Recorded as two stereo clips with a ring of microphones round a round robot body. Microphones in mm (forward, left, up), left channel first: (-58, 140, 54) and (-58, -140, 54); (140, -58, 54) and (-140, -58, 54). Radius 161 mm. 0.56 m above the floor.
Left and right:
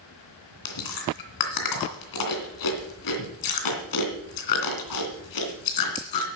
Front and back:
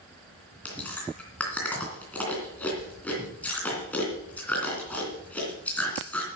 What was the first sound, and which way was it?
Chewing, 85° left.